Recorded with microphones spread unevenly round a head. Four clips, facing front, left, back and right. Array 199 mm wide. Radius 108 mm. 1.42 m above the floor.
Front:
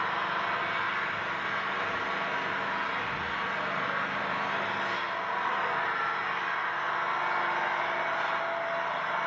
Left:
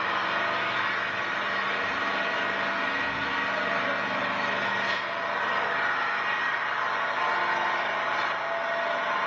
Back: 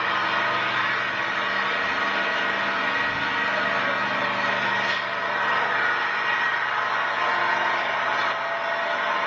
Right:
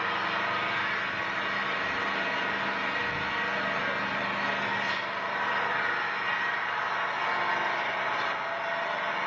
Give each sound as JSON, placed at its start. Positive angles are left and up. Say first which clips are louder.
{"t": 0.0, "sound": "an engine running", "louder": "left 2 dB, back 6 dB", "azimuth_deg": 150, "distance_m": 3.5}